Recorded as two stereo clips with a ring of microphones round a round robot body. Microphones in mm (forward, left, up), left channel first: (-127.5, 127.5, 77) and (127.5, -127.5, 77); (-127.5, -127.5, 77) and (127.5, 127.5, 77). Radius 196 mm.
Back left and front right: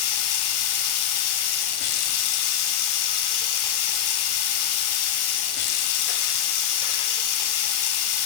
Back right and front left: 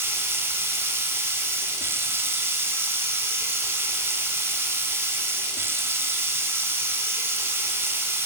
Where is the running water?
130° left, 0.8 m.